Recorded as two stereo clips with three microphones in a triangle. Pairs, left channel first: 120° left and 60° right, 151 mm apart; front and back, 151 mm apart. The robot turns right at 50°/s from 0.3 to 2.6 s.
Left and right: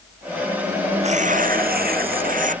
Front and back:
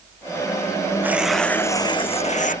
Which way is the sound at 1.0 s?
105° right.